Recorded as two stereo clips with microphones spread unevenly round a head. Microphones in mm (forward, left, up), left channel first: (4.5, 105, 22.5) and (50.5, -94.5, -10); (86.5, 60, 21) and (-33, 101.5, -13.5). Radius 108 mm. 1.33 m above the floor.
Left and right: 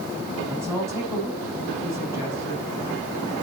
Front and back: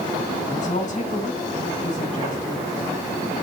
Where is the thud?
No thud in this recording.